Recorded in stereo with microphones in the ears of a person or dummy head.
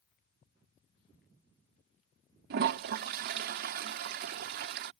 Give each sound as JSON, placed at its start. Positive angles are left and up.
{"t": 2.5, "sound": "a toilet flushing", "side_deg": -55}